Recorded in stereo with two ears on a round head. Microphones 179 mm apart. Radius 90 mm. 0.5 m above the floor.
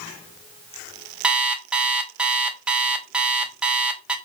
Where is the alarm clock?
5° right (ahead or behind), 0.6 m.